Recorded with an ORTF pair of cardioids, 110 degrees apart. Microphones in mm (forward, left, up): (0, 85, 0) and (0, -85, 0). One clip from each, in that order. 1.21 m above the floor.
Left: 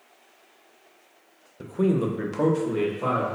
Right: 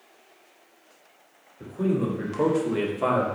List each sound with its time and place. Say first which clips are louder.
1.6 s a man speaking: left 2 dB; 55° left, 0.8 m; by 3.3 s 35° right, 1.0 m